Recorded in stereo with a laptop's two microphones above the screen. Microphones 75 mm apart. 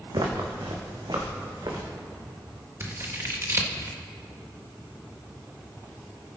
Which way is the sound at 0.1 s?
65° right (ahead or behind).